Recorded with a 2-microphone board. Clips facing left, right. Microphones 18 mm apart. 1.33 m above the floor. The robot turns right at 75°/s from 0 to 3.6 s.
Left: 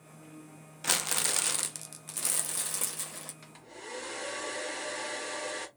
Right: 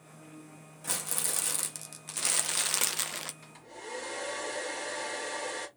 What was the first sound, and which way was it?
Crumpling, 110° left.